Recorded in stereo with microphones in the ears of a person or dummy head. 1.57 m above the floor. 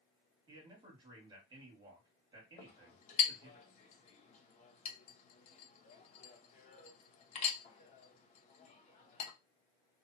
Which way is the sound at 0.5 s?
30° right (ahead or behind).